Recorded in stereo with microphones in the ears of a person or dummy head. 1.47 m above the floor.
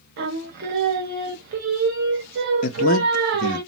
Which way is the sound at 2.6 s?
50° left (ahead or behind).